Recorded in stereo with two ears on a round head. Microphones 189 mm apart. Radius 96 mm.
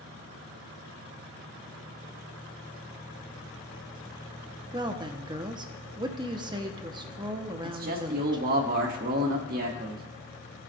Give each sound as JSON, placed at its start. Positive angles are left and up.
{"t": 4.7, "sound": "a woman speaking", "side_deg": -20, "distance_m": 0.8}
{"t": 7.6, "sound": "a man speaking", "side_deg": -45, "distance_m": 1.7}